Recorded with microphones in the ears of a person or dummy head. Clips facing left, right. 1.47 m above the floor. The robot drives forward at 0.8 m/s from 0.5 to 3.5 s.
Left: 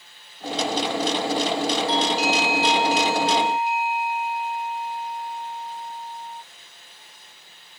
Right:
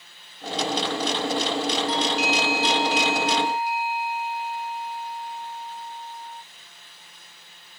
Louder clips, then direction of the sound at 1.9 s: Left 2 dB; 30° left (ahead or behind).